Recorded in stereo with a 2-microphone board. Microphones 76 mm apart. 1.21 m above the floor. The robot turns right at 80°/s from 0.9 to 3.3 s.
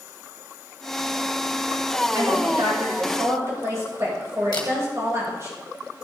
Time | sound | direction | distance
2.1 | a woman speaking | 135° right | 6 m
4.5 | a camera shutter | 70° left (ahead or behind) | 2.5 m